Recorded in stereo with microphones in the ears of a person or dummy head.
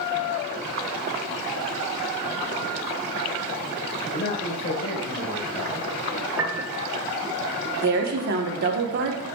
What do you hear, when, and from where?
4.1 s a man speaking: 50° left (ahead or behind), 1.3 m; by 5.9 s 5° right (ahead or behind), 1.5 m
6.4 s a piano: 20° right (ahead or behind), 0.8 m
7.8 s a woman speaking: 50° right (ahead or behind), 1.0 m